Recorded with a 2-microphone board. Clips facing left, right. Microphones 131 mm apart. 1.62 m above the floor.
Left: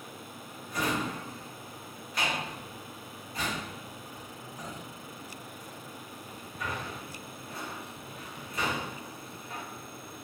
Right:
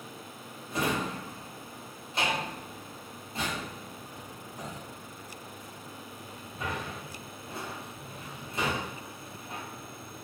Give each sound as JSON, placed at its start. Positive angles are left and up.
{"t": 0.7, "sound": "a drawer", "side_deg": -25, "distance_m": 0.7}